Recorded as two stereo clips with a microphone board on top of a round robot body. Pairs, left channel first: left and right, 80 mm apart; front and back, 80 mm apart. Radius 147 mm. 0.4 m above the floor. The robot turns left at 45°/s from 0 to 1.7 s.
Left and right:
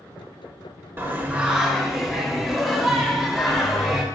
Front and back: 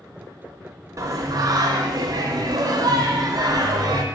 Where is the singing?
145° right, 0.7 m; by 4.0 s straight behind, 0.7 m.